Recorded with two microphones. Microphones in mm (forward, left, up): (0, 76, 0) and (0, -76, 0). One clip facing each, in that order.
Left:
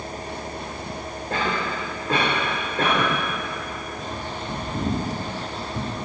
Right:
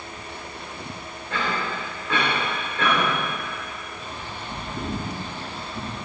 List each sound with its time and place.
1.3 s a cough: 40° left (ahead or behind), 3.5 m
4.0 s a bird: 80° left, 6 m